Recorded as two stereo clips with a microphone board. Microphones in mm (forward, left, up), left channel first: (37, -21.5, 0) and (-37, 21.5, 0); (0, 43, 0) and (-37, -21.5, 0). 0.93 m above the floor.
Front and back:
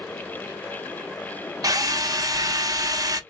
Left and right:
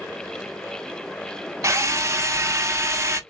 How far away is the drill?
About 0.7 m.